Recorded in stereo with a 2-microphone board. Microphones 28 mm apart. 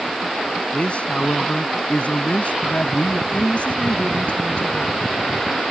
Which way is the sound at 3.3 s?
55° left (ahead or behind).